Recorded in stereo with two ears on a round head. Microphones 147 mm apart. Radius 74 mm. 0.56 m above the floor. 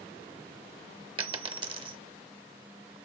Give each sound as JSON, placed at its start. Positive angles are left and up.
{"t": 1.2, "sound": "a dropped coin", "side_deg": -30, "distance_m": 0.5}